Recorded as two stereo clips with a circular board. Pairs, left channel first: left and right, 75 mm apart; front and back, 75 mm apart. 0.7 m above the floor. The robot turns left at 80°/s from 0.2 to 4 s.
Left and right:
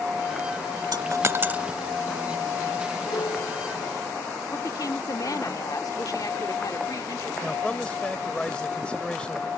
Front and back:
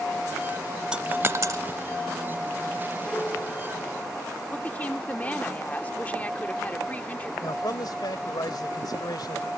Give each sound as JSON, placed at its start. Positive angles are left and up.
{"t": 0.9, "sound": "a dropped coin", "azimuth_deg": -105}
{"t": 3.1, "sound": "a piano", "azimuth_deg": 90}
{"t": 4.5, "sound": "a woman speaking", "azimuth_deg": 65}
{"t": 7.4, "sound": "a man speaking", "azimuth_deg": 15}